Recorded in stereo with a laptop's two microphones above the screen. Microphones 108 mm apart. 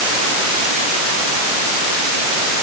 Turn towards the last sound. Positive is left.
No sound to turn to.